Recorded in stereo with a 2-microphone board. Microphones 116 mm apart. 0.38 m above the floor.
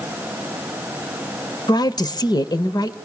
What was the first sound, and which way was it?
A woman speaking, 35° left (ahead or behind).